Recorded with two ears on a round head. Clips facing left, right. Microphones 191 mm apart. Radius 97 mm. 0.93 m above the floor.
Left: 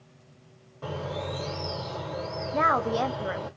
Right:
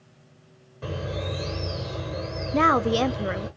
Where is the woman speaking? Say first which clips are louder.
Right 5 dB; 40° right (ahead or behind), 0.5 m.